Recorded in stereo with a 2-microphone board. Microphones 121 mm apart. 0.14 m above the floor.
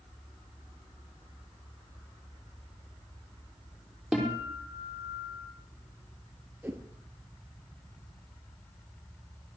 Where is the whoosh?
15° right (ahead or behind), 1.4 m.